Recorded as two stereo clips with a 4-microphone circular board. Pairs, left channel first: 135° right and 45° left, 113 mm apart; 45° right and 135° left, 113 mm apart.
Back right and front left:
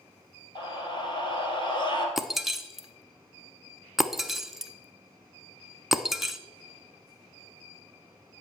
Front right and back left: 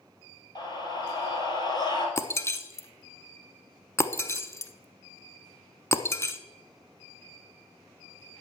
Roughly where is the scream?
Right.